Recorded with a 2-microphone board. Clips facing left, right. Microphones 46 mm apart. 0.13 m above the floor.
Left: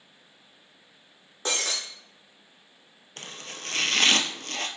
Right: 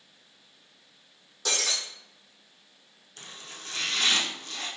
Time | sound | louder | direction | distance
1.4 | breaking glass | left 1 dB | 30° left (ahead or behind) | 2.5 m
3.2 | chopping | left 4 dB | 65° left (ahead or behind) | 0.8 m